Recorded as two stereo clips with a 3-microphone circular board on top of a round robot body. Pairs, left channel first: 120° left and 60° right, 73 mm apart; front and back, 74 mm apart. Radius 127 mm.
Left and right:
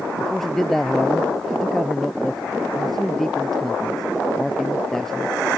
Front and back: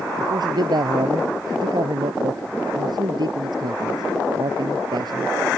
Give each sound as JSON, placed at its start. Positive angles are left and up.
{"t": 0.2, "sound": "a man speaking", "azimuth_deg": -155}